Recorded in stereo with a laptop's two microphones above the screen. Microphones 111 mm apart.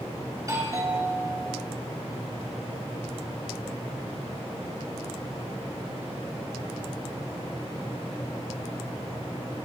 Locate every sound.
0.4 s a doorbell: 30° right (ahead or behind), 2 m